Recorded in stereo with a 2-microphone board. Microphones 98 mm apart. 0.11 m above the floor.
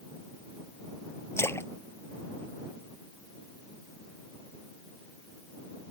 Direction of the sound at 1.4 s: 25° left (ahead or behind).